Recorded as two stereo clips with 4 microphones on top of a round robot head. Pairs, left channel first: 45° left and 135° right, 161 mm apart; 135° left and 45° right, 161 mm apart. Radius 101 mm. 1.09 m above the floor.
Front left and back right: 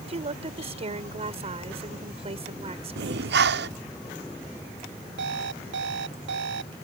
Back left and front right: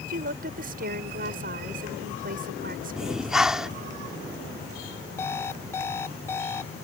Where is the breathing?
130° right.